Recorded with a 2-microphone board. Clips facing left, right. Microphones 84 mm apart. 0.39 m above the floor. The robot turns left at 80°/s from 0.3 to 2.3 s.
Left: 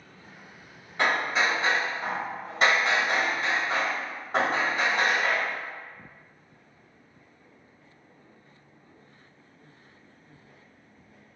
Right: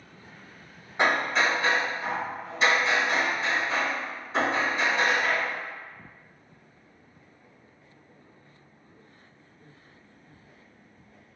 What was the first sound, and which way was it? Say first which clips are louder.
Hammering: right 1 dB; 155° right.